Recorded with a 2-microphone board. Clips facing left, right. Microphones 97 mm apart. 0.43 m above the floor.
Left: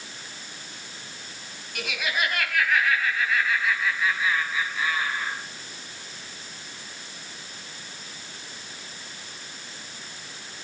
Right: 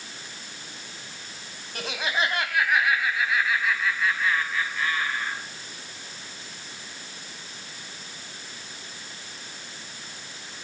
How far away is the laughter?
About 2.5 m.